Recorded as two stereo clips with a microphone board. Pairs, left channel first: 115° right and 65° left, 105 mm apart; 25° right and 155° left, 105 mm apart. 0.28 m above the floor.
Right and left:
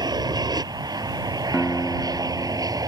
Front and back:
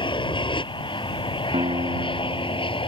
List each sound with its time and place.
0.0 s an aircraft: 20° left; by 2.9 s 15° left
1.5 s a guitar: 170° left